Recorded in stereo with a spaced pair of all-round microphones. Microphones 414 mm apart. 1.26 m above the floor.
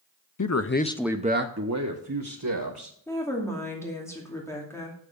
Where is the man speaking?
45° left (ahead or behind), 0.7 m; by 3.0 s 55° right (ahead or behind), 2 m.